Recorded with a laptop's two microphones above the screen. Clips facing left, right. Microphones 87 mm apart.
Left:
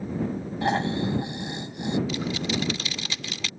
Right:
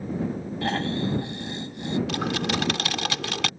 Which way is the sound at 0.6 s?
20° left (ahead or behind).